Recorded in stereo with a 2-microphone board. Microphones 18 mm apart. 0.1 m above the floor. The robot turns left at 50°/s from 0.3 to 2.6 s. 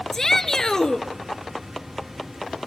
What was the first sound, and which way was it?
A shout, 140° left.